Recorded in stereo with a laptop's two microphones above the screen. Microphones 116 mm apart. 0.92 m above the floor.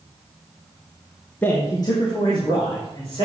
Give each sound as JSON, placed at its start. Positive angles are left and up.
{"t": 1.4, "sound": "a man speaking", "side_deg": 15, "distance_m": 0.9}